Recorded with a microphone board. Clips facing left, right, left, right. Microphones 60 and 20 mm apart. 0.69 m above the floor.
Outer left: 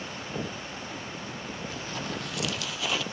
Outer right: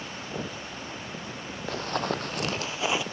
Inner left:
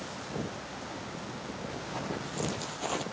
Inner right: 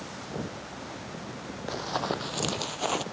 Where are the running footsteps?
65° right (ahead or behind), 1.4 m; by 3.0 s 20° right (ahead or behind), 0.9 m.